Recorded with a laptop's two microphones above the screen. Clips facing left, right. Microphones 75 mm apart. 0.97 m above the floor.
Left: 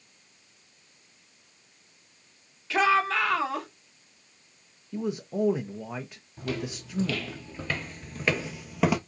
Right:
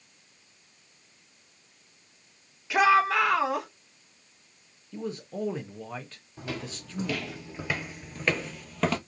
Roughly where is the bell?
No bell in this recording.